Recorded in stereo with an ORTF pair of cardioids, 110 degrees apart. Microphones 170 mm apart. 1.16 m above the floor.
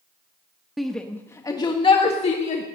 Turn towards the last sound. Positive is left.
turn(degrees=45)